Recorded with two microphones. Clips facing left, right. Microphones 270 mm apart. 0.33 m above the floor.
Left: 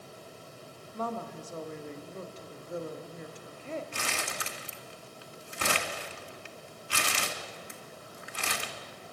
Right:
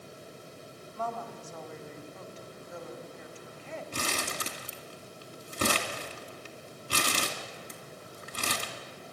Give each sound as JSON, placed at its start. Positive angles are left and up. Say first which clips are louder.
{"t": 0.9, "sound": "a woman speaking", "louder": "left 2 dB", "side_deg": 45, "distance_m": 1.6}
{"t": 3.9, "sound": "crumpling", "louder": "right 3 dB", "side_deg": -45, "distance_m": 1.8}